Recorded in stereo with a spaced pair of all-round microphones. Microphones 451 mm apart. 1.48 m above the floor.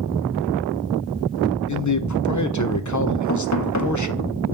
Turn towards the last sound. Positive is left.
turn(degrees=40)  # may be behind; listen again after turning